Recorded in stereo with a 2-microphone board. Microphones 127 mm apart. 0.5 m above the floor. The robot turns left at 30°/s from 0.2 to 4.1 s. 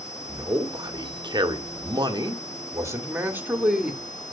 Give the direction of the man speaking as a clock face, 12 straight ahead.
2 o'clock.